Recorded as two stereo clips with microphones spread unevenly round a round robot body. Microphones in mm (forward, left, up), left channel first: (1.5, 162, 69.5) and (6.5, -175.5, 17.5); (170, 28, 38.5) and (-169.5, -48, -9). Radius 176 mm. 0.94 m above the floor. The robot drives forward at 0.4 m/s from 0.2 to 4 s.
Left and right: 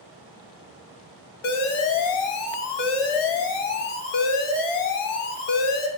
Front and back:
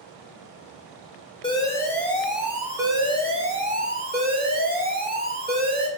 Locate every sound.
1.4 s an alarm: 90° left, 1.4 m; by 5.9 s 125° left, 1.7 m